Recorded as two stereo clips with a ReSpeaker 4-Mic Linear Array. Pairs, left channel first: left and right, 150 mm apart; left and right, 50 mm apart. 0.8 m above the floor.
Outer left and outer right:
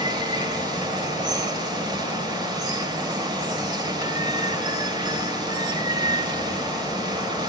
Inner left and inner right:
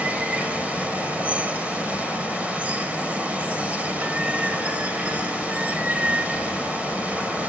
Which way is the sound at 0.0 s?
30° right (ahead or behind).